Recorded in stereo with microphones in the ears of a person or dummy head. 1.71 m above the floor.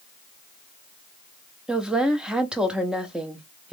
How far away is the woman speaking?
About 0.7 m.